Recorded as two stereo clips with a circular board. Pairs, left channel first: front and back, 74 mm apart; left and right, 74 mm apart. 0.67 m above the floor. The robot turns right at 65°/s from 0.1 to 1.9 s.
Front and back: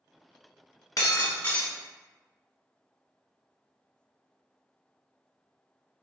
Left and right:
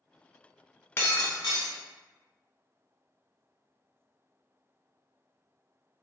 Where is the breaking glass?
35° left, 1.1 m; by 1.8 s 90° left, 1.1 m.